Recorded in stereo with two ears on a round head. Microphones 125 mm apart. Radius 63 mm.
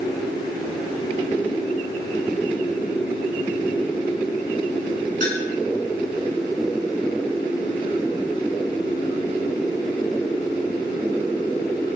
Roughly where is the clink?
Right.